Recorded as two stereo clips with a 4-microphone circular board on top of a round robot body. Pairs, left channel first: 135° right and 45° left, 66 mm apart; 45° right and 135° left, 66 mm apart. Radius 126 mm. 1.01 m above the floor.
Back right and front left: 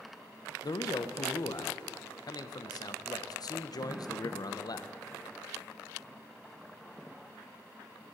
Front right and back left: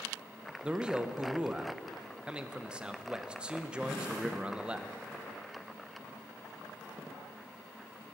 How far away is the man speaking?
About 0.7 m.